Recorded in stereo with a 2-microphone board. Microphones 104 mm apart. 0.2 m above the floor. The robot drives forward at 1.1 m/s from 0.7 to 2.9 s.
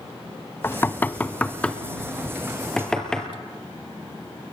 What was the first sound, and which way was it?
Knocking, 25° left (ahead or behind).